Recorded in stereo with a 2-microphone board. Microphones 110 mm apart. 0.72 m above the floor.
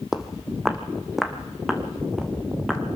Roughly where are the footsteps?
Centre.